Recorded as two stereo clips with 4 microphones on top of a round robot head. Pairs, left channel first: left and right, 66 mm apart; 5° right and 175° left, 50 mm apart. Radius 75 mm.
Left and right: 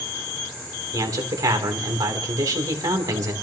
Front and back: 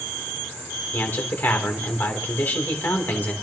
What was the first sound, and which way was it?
A man speaking, 60° right.